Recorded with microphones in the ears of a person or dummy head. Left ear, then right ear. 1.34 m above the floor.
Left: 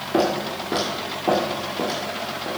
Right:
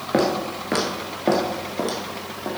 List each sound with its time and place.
0.1 s footsteps: 30° right (ahead or behind), 1.5 m; by 2.5 s 50° right (ahead or behind), 2.5 m